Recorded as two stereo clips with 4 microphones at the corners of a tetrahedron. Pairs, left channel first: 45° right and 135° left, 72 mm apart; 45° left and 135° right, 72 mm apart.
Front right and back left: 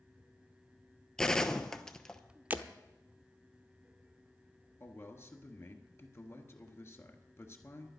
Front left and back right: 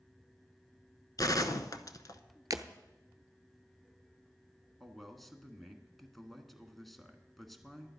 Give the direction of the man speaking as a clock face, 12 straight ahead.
1 o'clock.